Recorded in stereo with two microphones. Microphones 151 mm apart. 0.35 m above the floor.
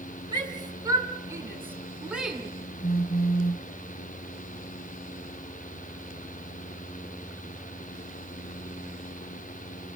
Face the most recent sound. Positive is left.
turn(degrees=80)